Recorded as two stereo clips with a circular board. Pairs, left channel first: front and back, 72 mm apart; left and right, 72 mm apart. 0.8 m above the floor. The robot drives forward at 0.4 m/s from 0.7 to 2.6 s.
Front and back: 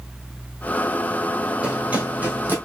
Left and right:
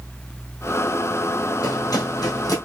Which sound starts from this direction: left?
Running footsteps, at 1.6 s.